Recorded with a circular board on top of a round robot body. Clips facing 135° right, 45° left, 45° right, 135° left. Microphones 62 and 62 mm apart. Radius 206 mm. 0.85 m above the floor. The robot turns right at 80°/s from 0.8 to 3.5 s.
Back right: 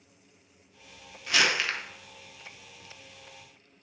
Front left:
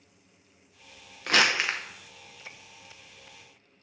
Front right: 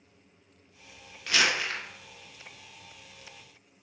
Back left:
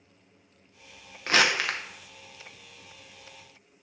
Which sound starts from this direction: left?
Crumpling, at 1.3 s.